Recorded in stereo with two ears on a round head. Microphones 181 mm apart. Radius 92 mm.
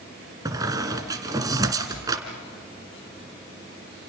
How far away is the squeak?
About 2 m.